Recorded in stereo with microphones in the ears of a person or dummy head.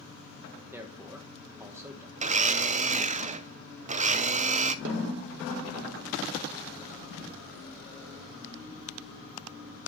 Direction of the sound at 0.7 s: 10° right (ahead or behind).